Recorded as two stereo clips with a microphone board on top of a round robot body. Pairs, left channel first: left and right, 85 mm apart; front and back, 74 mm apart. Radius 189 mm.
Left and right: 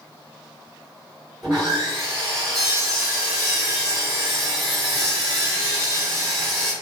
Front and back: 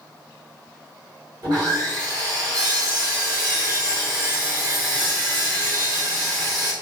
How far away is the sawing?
About 1.1 m.